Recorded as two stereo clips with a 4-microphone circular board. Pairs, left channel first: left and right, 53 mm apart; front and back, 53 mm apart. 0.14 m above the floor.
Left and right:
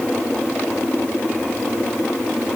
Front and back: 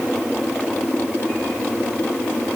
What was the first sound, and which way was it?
Only background noise.